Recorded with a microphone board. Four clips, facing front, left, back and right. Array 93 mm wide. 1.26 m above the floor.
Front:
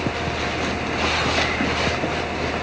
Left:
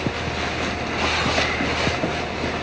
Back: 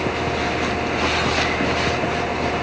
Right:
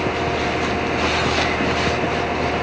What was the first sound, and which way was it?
Only background noise.